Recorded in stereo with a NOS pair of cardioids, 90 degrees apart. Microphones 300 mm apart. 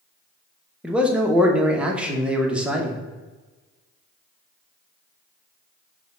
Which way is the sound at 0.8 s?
5° right.